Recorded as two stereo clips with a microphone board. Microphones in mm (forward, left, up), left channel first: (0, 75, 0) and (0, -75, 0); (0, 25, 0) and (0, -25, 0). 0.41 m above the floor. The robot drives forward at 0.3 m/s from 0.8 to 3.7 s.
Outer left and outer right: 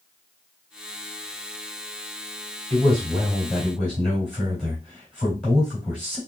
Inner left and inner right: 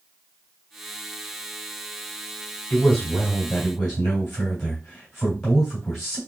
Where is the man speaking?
5° left (ahead or behind), 2.5 m.